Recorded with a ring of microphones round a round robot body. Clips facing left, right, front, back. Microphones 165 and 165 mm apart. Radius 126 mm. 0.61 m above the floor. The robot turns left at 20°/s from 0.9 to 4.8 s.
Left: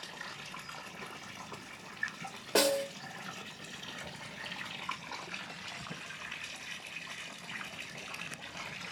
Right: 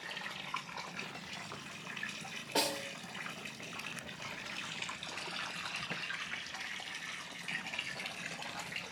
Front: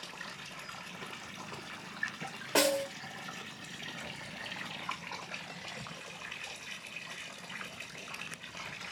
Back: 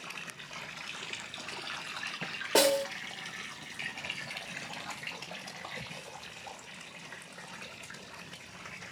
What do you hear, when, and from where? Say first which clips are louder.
2.5 s a snare drum: left 8 dB, back 3 dB; 130° left, 2.5 m; by 2.9 s 125° left, 2.5 m